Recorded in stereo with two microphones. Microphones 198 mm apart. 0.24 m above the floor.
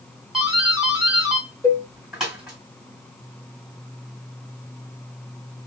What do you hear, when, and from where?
0.3 s a doorbell: 5° right (ahead or behind), 3 m
1.6 s a cowbell: 15° left (ahead or behind), 3 m